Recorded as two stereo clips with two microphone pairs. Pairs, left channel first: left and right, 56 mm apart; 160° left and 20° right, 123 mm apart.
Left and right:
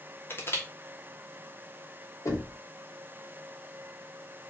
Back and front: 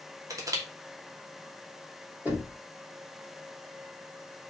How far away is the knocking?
About 4 m.